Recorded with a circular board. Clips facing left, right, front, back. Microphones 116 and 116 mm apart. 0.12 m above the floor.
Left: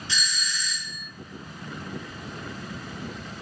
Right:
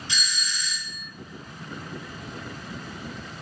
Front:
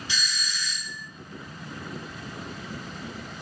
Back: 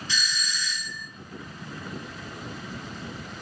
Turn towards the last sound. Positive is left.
turn(degrees=-60)